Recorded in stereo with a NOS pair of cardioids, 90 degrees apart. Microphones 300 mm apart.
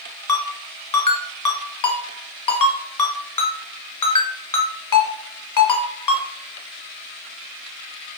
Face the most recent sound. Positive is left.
turn(degrees=20)